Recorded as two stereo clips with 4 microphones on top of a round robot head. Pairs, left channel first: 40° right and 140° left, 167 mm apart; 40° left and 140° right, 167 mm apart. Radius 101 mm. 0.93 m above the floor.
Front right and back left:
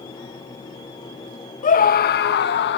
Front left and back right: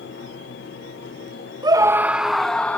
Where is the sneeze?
I don't hear a sneeze.